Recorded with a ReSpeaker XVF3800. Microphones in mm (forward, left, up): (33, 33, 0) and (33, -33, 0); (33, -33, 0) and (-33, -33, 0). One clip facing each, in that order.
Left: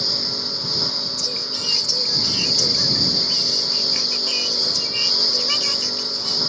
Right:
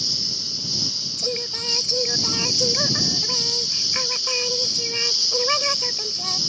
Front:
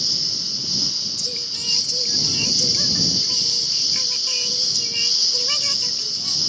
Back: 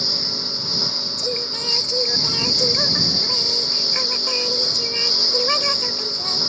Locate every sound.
0.0 s a lawn mower: 130° left
1.2 s singing: 140° right